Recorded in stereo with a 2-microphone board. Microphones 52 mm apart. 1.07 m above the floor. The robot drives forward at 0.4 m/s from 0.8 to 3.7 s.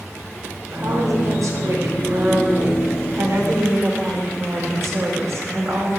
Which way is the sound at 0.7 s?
80° right.